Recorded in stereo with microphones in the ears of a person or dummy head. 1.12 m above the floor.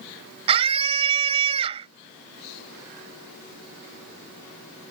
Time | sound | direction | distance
0.5 | a scream | 35° right (ahead or behind) | ?